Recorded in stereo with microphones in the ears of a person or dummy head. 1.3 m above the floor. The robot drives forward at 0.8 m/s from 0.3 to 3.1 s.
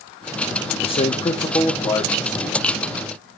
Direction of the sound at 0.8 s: 30° left (ahead or behind).